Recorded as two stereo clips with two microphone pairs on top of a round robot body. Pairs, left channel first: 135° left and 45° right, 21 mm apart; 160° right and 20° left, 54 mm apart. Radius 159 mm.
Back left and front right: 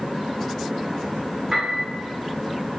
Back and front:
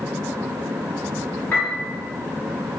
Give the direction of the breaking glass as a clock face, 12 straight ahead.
No breaking glass in this recording.